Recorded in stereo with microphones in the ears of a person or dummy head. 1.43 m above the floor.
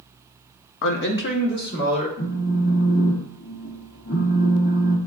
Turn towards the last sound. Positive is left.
turn(degrees=45)  # may be behind; listen again after turning